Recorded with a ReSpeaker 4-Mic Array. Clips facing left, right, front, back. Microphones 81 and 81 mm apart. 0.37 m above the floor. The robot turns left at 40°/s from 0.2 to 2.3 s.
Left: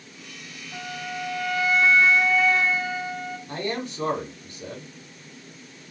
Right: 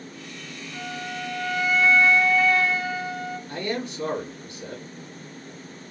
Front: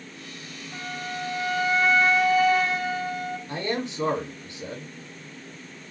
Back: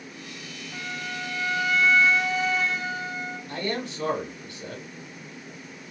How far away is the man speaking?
About 1.3 m.